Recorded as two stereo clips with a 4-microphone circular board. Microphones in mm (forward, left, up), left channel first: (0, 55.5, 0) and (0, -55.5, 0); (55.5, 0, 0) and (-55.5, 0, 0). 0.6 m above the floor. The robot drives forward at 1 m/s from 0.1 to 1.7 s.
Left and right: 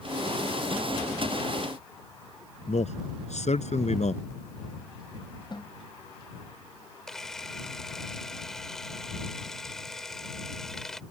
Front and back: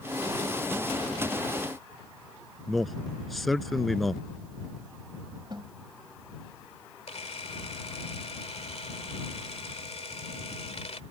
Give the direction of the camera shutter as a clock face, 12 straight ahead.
12 o'clock.